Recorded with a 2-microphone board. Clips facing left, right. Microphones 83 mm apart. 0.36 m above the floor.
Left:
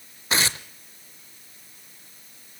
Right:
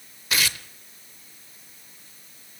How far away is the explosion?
I don't hear an explosion.